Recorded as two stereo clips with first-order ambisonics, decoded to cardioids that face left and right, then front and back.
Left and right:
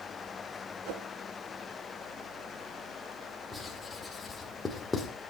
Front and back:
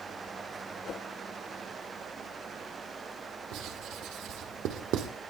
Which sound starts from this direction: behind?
Writing, at 3.5 s.